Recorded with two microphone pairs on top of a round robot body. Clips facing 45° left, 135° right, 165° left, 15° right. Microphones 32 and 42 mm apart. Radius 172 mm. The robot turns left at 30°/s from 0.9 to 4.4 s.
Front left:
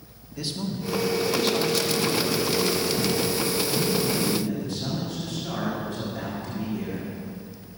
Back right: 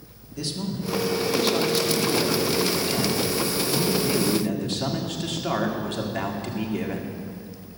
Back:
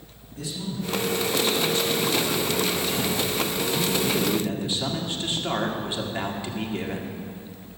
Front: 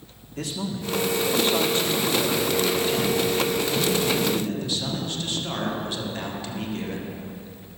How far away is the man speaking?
About 1.9 m.